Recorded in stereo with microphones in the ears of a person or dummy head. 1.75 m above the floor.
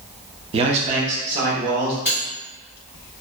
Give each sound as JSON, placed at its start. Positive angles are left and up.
{"t": 0.5, "sound": "a man speaking", "side_deg": -30, "distance_m": 0.5}
{"t": 2.0, "sound": "cutlery clinking", "side_deg": -5, "distance_m": 0.8}